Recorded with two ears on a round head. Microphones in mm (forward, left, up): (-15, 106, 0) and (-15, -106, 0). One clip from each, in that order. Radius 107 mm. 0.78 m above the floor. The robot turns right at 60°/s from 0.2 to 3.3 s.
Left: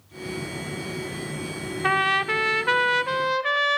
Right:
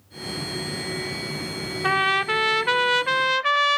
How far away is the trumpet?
About 0.6 m.